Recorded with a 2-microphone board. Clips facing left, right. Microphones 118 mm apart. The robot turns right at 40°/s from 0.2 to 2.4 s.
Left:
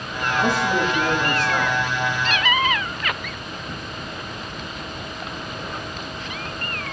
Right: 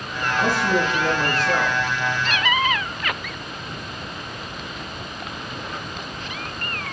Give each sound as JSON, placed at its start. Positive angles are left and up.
{"t": 0.4, "sound": "a man speaking", "azimuth_deg": 180, "distance_m": 5.5}